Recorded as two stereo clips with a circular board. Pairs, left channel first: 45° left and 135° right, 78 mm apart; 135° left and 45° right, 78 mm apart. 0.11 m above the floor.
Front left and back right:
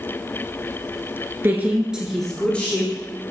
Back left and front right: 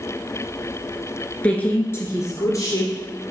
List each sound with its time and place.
1.4 s a woman speaking: 165° right, 1.4 m; by 2.9 s 105° left, 2.0 m